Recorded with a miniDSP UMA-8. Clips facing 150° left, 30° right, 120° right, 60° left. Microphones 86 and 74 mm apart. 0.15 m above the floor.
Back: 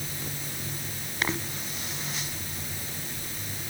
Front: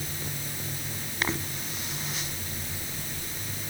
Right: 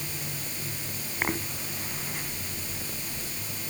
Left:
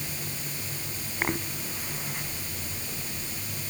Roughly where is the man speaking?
No man speaking in this recording.